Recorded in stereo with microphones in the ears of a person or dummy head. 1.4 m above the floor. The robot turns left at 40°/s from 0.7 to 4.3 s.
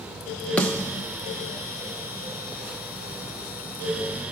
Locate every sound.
0.6 s a snare drum: 10° left (ahead or behind), 0.6 m; by 1.1 s 20° left (ahead or behind), 0.6 m